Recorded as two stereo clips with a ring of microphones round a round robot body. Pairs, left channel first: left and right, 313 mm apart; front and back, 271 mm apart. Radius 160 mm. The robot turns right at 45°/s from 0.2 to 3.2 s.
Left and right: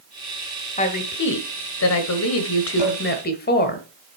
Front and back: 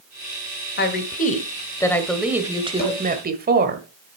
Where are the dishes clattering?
55° left, 4 m; by 3.0 s 65° left, 4 m.